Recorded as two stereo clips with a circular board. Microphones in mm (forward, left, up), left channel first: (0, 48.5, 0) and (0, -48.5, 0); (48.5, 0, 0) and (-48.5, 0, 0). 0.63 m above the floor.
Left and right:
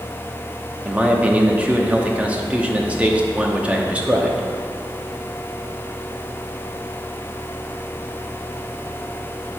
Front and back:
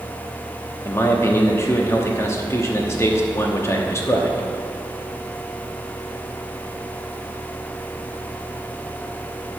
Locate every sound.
0.8 s a man speaking: 25° right, 1.0 m